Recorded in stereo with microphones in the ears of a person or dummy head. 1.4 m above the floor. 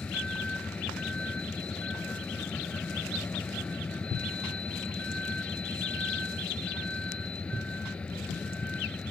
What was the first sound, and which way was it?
A vehicle, 5° left (ahead or behind).